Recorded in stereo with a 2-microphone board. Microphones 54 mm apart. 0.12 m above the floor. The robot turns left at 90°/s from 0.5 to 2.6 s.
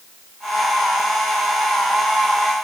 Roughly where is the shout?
No shout in this recording.